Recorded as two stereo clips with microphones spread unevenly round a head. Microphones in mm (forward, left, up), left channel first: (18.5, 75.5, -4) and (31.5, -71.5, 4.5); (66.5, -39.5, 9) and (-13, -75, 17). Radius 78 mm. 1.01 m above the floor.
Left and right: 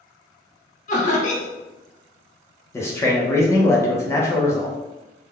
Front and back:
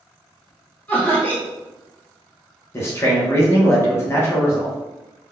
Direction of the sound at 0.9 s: 95° left.